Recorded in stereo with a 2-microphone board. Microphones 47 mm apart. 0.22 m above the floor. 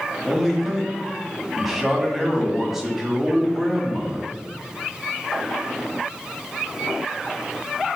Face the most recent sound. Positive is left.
turn(degrees=-5)  # may be behind; listen again after turning